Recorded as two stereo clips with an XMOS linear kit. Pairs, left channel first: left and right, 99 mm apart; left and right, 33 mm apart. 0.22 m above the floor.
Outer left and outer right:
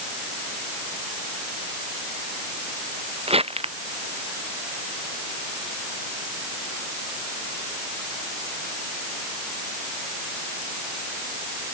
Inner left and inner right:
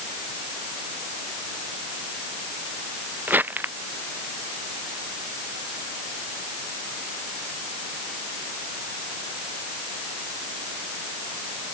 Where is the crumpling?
80° right.